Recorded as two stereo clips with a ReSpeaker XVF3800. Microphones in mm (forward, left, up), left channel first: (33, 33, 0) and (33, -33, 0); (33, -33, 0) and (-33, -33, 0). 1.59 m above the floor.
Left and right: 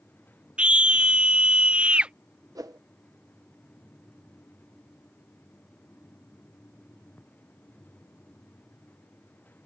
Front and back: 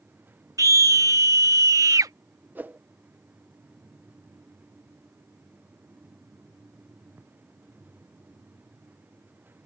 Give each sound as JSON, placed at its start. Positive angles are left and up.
{"t": 0.6, "sound": "a scream", "azimuth_deg": -160}
{"t": 2.5, "sound": "a whoosh", "azimuth_deg": -115}